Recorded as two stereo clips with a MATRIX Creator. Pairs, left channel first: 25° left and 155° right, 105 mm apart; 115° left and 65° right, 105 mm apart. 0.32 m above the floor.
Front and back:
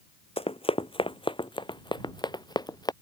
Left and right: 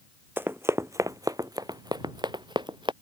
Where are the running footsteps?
5° left; by 2.9 s 25° right.